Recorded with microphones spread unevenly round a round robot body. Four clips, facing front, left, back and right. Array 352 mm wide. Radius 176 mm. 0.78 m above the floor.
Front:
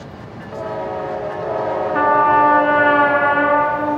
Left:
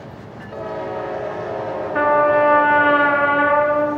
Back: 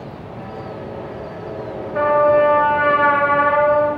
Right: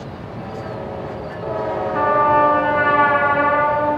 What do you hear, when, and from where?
1.9 s a trumpet: 15° left, 5.5 m